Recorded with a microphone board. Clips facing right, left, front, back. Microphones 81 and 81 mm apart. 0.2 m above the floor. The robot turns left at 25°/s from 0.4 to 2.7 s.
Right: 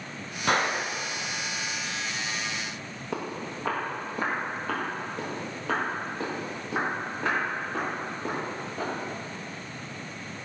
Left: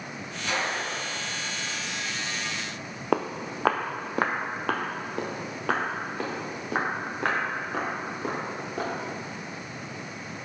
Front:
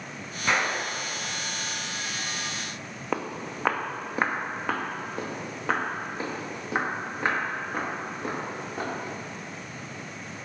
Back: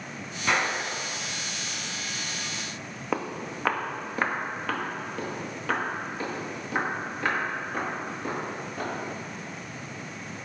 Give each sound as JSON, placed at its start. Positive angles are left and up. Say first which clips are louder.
{"t": 0.5, "sound": "a gunshot", "louder": "right 4 dB, even", "azimuth_deg": -90, "distance_m": 0.7}
{"t": 3.1, "sound": "footsteps", "louder": "left 6 dB, even", "azimuth_deg": 90, "distance_m": 0.6}